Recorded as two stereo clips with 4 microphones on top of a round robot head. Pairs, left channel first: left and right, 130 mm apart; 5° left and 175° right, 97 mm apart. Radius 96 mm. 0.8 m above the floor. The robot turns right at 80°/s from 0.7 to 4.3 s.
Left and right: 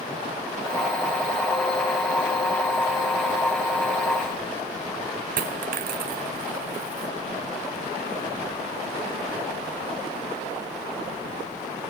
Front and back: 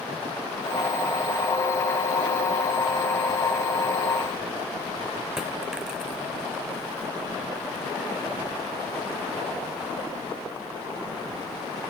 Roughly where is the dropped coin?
Right.